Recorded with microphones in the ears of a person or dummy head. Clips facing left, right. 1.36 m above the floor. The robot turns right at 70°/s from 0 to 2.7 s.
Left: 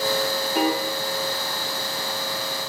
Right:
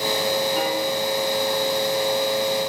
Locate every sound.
0.6 s a piano: 55° left (ahead or behind), 1.0 m; by 0.8 s 75° left (ahead or behind), 1.0 m